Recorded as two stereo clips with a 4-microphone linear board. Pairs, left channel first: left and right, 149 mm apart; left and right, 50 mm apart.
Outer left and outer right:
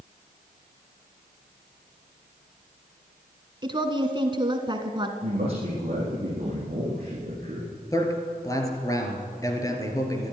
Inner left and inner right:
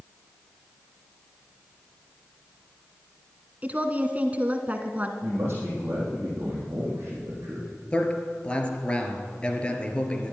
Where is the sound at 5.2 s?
45° right (ahead or behind), 4.5 m.